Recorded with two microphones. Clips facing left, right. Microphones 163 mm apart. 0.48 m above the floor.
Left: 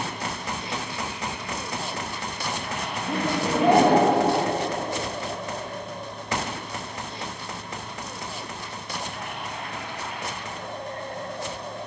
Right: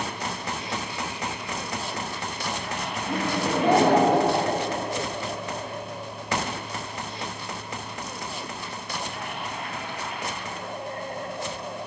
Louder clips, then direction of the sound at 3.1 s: Left 1 dB; 25° left (ahead or behind).